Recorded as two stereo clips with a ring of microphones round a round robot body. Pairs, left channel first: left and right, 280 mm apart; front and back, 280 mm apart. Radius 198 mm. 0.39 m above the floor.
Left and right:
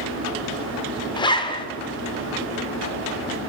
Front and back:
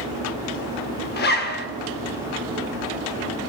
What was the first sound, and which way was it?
A zipper, 25° left.